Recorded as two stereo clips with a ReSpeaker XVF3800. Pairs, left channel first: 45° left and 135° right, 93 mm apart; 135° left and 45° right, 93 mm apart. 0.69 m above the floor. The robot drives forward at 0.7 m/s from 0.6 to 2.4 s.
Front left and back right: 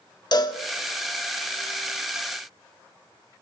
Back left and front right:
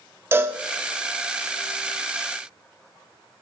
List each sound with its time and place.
0.3 s a cowbell: 15° left, 1.2 m